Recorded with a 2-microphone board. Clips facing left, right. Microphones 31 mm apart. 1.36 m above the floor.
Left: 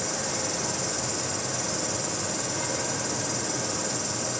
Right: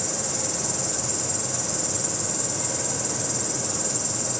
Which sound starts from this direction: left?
An insect, at 0.0 s.